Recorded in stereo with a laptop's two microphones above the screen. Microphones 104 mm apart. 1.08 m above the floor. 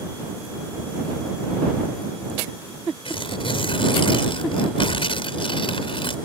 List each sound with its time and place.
3.0 s tearing paper: 60° left (ahead or behind)